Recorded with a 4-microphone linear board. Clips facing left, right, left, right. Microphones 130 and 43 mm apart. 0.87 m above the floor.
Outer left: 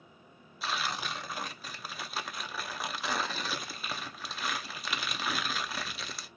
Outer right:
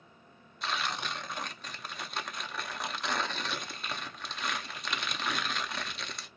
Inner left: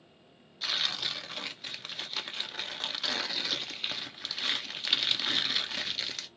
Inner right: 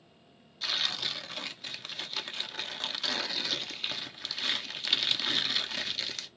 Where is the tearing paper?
5° left (ahead or behind), 0.5 m.